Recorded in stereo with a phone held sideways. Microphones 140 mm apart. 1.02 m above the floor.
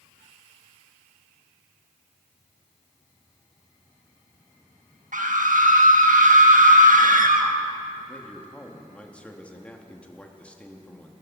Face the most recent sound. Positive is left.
turn(degrees=10)  # may be behind; listen again after turning